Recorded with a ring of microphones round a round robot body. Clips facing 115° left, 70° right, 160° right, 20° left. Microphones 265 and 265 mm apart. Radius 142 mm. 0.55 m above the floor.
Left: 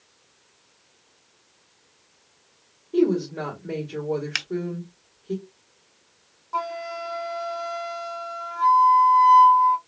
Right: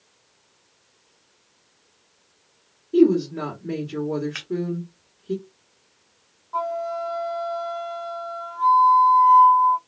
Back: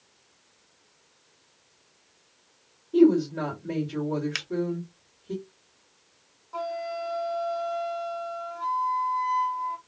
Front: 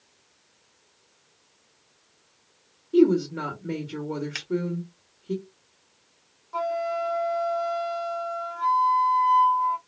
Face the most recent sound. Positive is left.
turn(degrees=105)